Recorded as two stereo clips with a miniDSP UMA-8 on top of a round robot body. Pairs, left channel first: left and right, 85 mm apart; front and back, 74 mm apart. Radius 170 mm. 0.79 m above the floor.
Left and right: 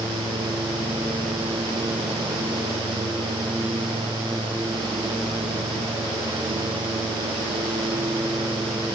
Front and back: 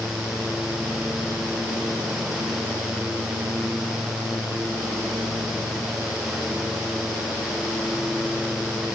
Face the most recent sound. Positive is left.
No sound to turn to.